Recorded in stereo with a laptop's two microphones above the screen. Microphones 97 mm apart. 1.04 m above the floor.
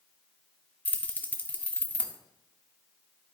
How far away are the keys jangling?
About 0.8 m.